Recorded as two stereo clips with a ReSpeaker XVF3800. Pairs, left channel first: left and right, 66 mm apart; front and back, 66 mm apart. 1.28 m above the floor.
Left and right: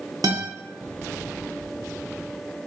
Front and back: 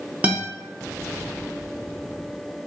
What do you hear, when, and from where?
0.2 s a guitar: 110° right, 0.7 m